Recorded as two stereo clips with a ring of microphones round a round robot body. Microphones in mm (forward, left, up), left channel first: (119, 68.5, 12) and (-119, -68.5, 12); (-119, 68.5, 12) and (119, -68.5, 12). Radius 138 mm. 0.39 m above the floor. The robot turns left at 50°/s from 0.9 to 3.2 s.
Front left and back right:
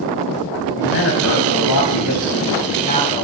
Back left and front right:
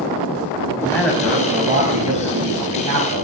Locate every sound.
0.8 s a man speaking: 70° left, 2.5 m; by 3.2 s 45° right, 2.5 m